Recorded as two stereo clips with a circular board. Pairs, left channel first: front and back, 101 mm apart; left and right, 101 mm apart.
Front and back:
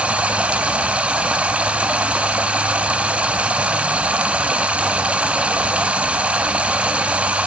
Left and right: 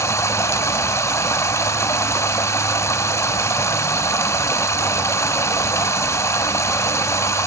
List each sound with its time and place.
0.0 s running water: 115° left, 0.7 m